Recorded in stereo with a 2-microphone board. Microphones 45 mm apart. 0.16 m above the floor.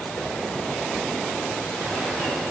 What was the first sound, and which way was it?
Only background noise.